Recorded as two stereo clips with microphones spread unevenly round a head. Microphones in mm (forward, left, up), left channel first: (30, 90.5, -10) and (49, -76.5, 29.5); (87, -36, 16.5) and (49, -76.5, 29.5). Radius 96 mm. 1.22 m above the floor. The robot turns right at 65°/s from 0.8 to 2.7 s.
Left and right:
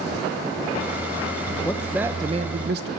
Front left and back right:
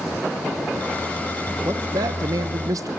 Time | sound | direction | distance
1.6 | a man speaking | 170° left | 1.0 m